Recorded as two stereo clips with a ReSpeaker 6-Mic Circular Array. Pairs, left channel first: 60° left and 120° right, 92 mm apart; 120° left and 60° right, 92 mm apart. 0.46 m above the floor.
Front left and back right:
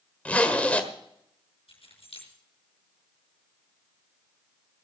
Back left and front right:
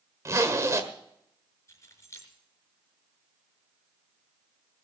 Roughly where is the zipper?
Ahead.